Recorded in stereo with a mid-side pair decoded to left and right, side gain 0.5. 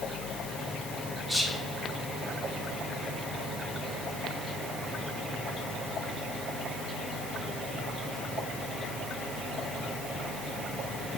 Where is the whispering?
10° left, 1.3 m.